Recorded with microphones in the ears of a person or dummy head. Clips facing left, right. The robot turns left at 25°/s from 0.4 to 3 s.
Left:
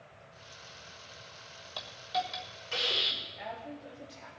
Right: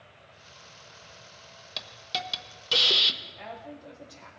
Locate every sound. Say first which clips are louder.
1.8 s a hiss: left 3 dB; 25° right (ahead or behind), 1.2 m; by 3.1 s 55° right (ahead or behind), 1.2 m
3.2 s a woman speaking: even; centre (ahead or behind), 3.5 m